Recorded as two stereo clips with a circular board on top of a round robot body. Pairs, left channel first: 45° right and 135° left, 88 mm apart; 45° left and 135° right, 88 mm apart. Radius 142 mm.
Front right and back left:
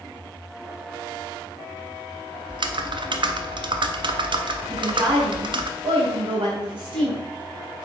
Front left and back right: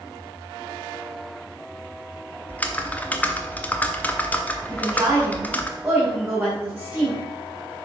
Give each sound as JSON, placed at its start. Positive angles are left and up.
{"t": 2.5, "sound": "typing on a keyboard", "azimuth_deg": 115, "distance_m": 1.1}
{"t": 4.7, "sound": "a woman speaking", "azimuth_deg": 150, "distance_m": 3.0}